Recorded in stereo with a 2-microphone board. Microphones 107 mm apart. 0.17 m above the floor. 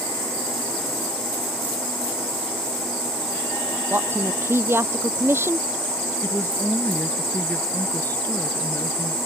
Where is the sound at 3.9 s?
25° right (ahead or behind).